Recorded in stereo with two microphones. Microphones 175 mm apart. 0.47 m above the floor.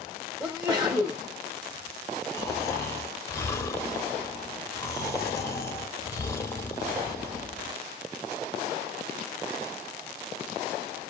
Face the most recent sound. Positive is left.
turn(degrees=15)  # may be behind; listen again after turning